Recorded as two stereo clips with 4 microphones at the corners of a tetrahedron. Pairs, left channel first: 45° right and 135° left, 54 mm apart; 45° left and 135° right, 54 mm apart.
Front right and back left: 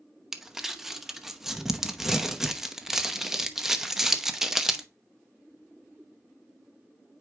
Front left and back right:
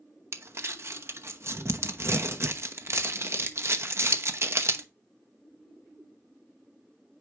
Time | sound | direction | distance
0.3 | crumpling | 145° right | 0.9 m